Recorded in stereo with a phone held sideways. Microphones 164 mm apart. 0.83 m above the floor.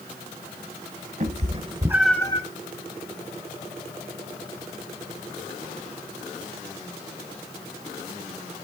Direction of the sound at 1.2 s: 50° right (ahead or behind).